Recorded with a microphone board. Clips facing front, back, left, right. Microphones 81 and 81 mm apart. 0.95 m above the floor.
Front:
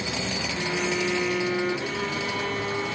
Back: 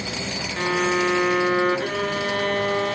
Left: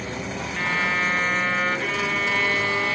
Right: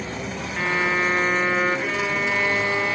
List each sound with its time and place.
0.6 s a violin: 170° right, 0.8 m